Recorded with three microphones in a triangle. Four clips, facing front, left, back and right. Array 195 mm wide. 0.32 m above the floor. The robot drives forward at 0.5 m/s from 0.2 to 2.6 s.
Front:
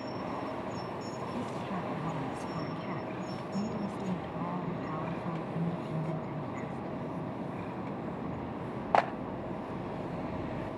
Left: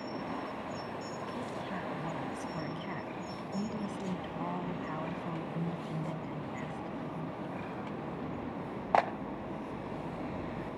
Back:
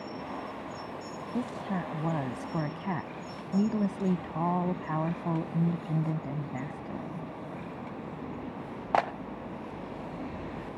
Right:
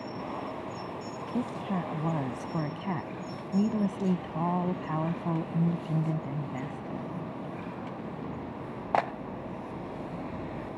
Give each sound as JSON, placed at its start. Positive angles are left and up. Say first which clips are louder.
{"t": 1.3, "sound": "a woman speaking", "louder": "right 11 dB, back 6 dB", "azimuth_deg": -130}